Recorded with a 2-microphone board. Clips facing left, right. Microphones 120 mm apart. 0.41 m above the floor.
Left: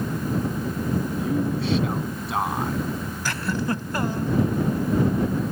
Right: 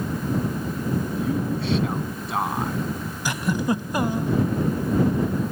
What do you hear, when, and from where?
1.2 s a man speaking: centre (ahead or behind)
3.2 s a giggle: 15° right (ahead or behind)